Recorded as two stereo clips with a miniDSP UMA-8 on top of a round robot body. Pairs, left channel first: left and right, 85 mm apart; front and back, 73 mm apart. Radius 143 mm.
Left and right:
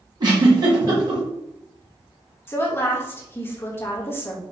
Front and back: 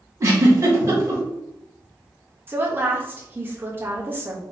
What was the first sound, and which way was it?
A giggle, 130° right.